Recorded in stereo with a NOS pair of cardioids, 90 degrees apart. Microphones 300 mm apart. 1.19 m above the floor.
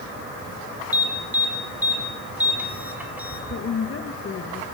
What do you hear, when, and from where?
0.9 s an alarm: 5° right, 4 m
3.5 s a woman speaking: 45° left, 1.7 m